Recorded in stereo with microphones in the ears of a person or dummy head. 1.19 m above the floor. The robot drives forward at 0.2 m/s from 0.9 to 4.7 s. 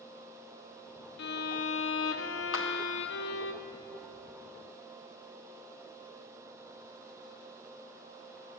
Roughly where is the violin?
Left.